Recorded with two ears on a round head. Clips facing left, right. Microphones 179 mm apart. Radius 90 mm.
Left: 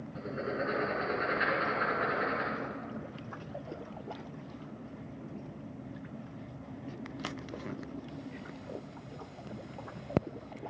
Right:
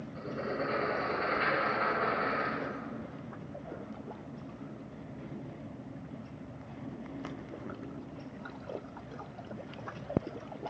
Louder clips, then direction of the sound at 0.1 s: Even; 20° left (ahead or behind).